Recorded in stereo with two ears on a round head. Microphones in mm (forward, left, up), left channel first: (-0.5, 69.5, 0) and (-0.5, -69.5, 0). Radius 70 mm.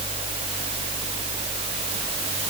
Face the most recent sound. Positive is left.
No sound to turn to.